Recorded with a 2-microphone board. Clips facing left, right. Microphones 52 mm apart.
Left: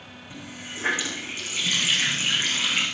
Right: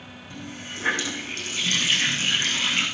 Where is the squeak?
No squeak in this recording.